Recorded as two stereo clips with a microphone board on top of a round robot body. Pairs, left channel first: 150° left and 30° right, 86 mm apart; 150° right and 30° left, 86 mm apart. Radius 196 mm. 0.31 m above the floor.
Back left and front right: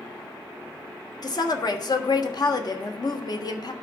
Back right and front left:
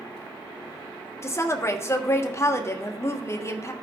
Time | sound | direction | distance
1.2 | a woman speaking | 160° left | 1.4 m